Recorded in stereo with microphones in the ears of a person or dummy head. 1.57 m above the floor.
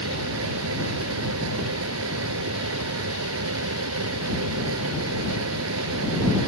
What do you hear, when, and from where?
0.0 s a fan: 80° right